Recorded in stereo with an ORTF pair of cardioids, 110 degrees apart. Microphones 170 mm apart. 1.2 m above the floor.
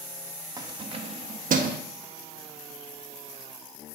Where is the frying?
I don't hear frying.